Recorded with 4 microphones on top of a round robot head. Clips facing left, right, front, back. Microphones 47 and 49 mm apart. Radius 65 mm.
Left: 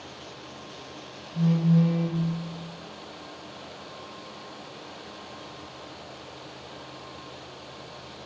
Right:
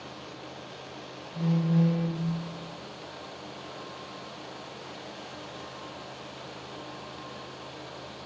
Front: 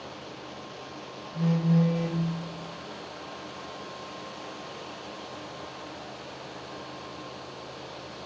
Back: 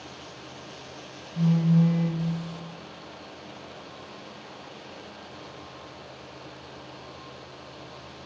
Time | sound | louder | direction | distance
1.3 | a phone buzzing | left 3 dB, back 2 dB | 20° right | 4 m